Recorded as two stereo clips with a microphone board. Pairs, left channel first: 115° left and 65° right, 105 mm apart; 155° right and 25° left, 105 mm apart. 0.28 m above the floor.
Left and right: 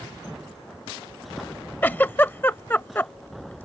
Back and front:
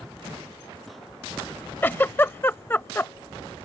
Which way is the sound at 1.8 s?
160° left.